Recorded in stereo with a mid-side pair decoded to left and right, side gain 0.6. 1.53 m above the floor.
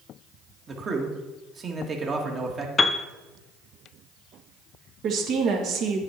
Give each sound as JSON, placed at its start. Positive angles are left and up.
{"t": 0.7, "sound": "a man speaking", "azimuth_deg": -35, "distance_m": 1.9}
{"t": 2.8, "sound": "a piano", "azimuth_deg": 20, "distance_m": 0.6}
{"t": 5.0, "sound": "a woman speaking", "azimuth_deg": -55, "distance_m": 2.0}